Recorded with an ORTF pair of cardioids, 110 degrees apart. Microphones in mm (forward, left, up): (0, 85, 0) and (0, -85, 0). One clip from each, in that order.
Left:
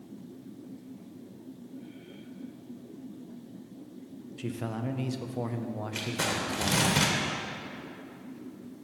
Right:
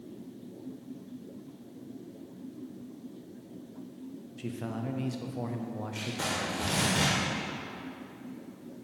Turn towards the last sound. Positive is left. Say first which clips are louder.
# left 2 dB
turn(degrees=40)